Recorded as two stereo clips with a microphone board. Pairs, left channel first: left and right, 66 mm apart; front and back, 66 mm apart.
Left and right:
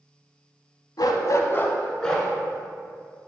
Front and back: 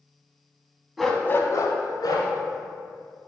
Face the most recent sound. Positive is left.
turn(degrees=5)